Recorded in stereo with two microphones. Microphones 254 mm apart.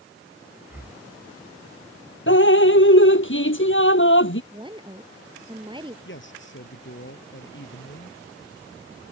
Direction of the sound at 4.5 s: 20° right (ahead or behind).